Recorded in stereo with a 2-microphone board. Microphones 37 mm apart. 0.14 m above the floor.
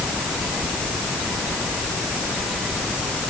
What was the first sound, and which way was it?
Only background noise.